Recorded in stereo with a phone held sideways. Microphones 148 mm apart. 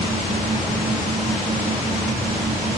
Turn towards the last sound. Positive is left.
turn(degrees=-60)  # may be behind; listen again after turning